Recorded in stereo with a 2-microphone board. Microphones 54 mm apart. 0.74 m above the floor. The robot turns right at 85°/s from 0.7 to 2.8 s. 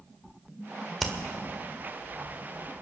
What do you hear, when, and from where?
1.0 s hammering: centre (ahead or behind), 1.6 m; by 1.1 s 10° right (ahead or behind), 1.6 m